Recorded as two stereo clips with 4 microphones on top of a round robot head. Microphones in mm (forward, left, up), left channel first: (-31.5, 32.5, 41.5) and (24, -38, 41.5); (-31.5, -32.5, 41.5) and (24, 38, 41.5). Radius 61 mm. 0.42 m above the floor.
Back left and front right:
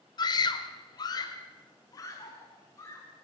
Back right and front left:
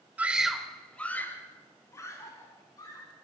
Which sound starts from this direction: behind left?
A scream, at 0.2 s.